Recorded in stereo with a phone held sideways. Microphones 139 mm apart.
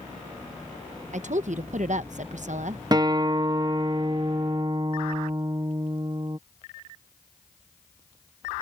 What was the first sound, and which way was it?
A woman speaking, 60° right (ahead or behind).